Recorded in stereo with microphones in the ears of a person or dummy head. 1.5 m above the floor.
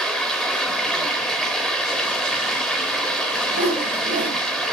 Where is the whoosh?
50° right (ahead or behind), 3 m.